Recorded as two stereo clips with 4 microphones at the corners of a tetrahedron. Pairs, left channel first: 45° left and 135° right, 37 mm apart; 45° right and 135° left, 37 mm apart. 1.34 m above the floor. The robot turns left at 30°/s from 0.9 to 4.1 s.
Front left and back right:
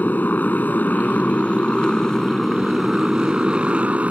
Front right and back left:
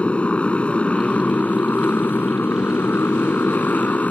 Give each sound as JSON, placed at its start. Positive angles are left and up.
{"t": 0.0, "sound": "a motorcycle", "azimuth_deg": 10}